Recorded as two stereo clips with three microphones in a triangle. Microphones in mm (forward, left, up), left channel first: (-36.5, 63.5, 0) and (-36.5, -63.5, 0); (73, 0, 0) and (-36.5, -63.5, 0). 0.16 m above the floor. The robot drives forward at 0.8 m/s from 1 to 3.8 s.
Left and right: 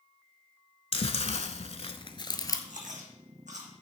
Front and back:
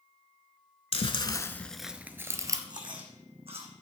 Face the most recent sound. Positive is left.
turn(degrees=-115)